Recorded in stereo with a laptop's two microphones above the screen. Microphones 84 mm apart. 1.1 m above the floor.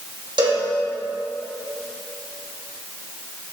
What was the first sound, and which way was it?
A cowbell, 65° right (ahead or behind).